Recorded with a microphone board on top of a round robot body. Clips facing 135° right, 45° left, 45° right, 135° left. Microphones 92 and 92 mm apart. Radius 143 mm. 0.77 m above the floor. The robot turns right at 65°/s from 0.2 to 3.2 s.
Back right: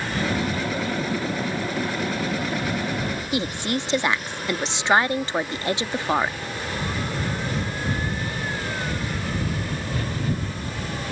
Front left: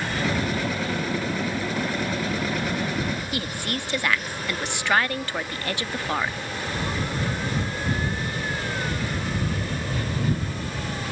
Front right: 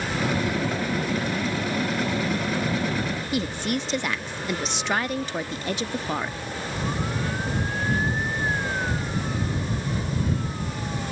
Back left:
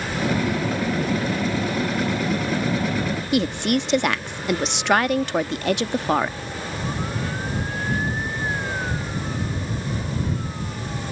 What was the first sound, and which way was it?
A woman speaking, 155° left.